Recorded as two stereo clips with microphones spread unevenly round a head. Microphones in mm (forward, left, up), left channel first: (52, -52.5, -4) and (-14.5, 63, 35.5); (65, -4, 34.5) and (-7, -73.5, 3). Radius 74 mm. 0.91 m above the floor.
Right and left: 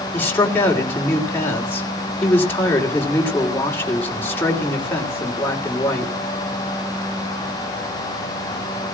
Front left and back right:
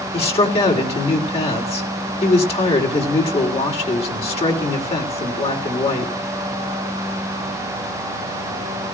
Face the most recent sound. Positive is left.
turn(degrees=15)